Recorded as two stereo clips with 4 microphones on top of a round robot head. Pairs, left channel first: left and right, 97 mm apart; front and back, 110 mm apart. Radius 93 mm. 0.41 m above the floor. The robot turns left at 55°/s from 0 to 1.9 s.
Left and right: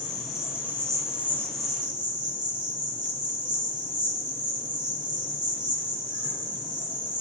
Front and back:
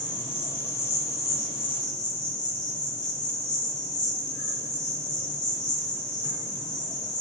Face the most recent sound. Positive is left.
turn(degrees=-50)